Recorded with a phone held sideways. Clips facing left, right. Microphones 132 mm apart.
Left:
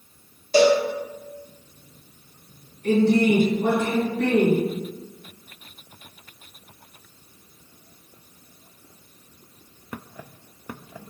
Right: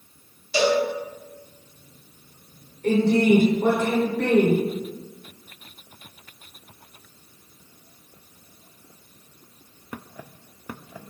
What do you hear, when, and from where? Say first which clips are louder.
0.5 s a cowbell: left 4 dB; 45° left (ahead or behind), 0.9 m
2.8 s a woman speaking: even; 65° right (ahead or behind), 1.0 m